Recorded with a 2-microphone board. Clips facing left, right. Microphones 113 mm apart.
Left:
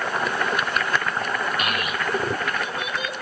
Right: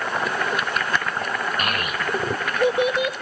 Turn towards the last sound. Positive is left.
turn(degrees=-55)  # may be behind; listen again after turning